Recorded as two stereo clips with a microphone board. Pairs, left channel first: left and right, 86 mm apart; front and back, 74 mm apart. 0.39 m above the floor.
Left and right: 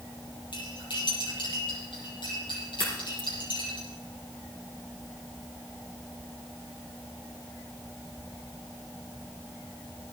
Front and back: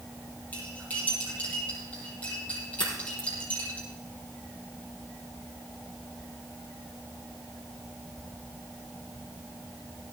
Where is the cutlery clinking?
70° left, 7 m.